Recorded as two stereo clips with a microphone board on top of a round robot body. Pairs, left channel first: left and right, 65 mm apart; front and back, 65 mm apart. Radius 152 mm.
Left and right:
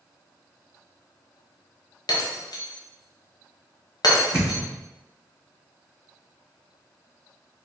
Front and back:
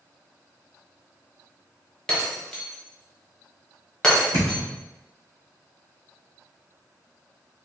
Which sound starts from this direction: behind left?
A thud, at 4.3 s.